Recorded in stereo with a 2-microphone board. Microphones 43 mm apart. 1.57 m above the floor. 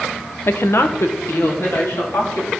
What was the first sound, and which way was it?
A woman speaking, 65° left (ahead or behind).